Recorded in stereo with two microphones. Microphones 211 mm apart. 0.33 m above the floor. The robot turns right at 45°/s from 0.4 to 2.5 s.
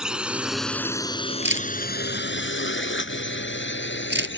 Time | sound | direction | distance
0.0 | a drone | 5° right (ahead or behind) | ?
1.4 | a camera shutter | 65° right (ahead or behind) | ?